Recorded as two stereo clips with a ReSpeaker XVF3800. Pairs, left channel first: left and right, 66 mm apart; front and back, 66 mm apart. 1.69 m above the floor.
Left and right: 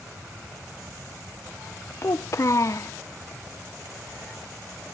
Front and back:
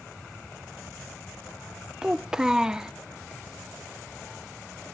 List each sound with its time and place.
2.0 s a child speaking: 105° left